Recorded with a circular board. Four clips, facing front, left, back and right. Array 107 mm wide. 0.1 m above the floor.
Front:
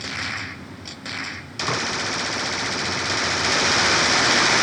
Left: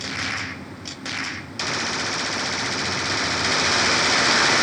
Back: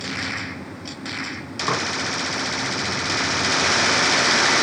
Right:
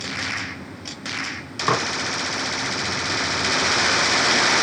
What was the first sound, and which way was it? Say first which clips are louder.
Dishes clattering: right 8 dB, back 2 dB; 105° right.